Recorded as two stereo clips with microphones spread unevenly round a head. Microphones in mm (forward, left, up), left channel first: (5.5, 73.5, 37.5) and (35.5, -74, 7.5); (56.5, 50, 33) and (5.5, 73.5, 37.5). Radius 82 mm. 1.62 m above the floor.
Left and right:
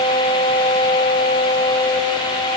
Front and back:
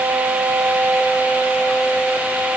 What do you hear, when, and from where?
Only background noise.